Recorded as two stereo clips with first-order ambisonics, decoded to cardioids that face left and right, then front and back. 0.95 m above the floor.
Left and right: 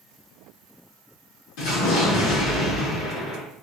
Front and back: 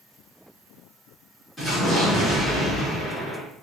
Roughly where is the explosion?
Left.